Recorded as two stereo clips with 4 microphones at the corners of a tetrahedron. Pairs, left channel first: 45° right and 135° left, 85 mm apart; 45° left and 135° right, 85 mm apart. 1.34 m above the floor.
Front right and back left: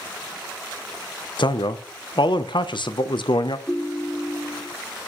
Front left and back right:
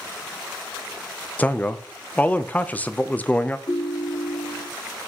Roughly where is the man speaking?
Ahead right.